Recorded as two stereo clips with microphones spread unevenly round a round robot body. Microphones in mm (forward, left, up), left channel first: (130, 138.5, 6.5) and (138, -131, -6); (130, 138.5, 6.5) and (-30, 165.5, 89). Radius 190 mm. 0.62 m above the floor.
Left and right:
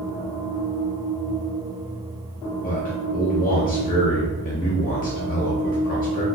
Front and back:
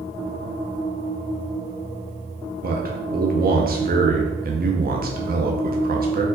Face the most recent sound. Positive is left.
turn(degrees=125)